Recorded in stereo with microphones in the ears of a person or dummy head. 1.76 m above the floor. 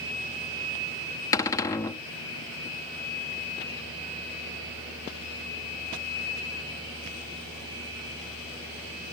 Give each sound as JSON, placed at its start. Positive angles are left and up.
{"t": 1.3, "sound": "a cupboard door", "side_deg": 20, "distance_m": 0.6}